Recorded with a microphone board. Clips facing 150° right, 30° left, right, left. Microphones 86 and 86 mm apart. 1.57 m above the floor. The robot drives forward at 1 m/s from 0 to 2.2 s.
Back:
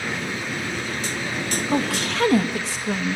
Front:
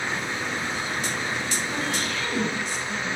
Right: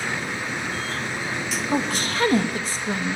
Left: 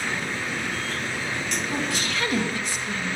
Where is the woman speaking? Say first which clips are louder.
Back 5 dB, right 7 dB; 135° right, 2 m; by 3.2 s 145° right, 2.5 m.